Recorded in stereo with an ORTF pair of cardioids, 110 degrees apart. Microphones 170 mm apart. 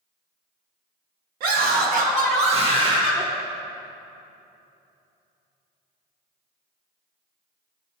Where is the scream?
70° right, 1.6 m; by 3.3 s 20° right, 1.2 m.